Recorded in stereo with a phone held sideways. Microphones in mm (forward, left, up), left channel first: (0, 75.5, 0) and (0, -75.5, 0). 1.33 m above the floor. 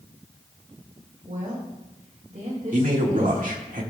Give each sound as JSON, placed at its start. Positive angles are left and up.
{"t": 1.3, "sound": "a woman speaking", "side_deg": -60, "distance_m": 2.0}
{"t": 2.7, "sound": "a man speaking", "side_deg": -65, "distance_m": 1.7}